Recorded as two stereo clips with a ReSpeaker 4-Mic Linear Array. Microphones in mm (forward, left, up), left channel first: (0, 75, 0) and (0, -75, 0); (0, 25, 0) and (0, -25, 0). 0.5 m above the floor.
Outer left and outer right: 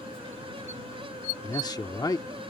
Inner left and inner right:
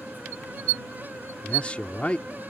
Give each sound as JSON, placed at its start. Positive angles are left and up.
{"t": 1.4, "sound": "a man speaking", "side_deg": 25}